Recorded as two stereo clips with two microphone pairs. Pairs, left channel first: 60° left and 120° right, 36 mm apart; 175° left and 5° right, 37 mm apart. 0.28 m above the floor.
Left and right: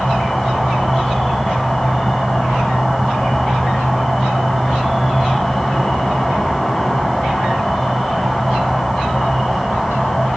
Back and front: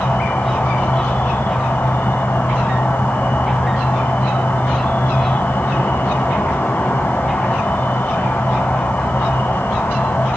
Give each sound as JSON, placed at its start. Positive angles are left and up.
{"t": 0.0, "sound": "an insect", "azimuth_deg": 150, "distance_m": 1.2}